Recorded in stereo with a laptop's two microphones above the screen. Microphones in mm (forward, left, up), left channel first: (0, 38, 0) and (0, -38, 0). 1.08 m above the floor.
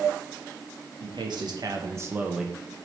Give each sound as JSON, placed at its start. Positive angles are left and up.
{"t": 1.0, "sound": "a man speaking", "side_deg": -75, "distance_m": 1.4}